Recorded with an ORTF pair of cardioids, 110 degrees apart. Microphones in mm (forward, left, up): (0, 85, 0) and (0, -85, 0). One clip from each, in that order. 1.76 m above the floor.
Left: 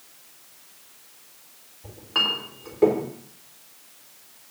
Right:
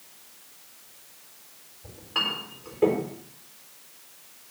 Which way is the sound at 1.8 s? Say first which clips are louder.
Left 4 dB; 35° left.